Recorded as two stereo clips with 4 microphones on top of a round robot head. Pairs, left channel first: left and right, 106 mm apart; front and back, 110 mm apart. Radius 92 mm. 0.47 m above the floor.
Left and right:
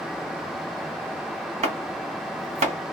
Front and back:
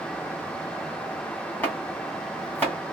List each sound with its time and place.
1.6 s chopping: 80° right, 1.4 m